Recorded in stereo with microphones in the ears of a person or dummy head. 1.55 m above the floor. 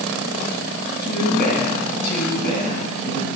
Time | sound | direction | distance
1.0 | a woman speaking | 55° left (ahead or behind) | 2.5 m